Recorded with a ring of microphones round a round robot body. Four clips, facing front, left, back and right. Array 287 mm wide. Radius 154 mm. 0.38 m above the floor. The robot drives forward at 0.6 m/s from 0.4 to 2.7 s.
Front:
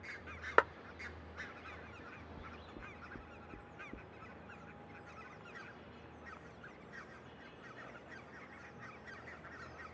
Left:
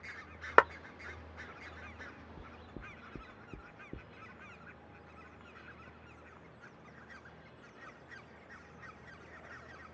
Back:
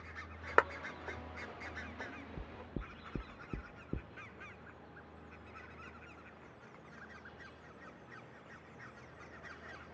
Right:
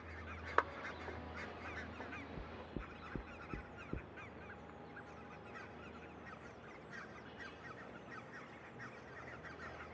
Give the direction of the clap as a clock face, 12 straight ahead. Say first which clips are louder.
Left 11 dB, back 1 dB; 9 o'clock.